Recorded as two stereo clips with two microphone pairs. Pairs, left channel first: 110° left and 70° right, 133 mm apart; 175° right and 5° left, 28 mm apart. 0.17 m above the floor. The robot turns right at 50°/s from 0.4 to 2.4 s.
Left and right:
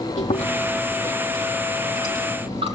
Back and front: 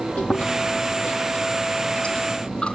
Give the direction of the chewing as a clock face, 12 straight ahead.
7 o'clock.